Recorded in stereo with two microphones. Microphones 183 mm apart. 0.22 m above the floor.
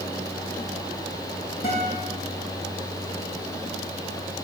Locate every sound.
1.6 s a guitar: 70° left (ahead or behind), 7 m